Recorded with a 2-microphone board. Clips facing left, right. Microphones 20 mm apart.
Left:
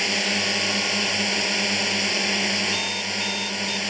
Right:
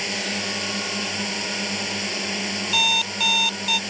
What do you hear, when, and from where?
0.0 s a drone: 20° left (ahead or behind)
2.7 s an alarm clock: 50° right (ahead or behind)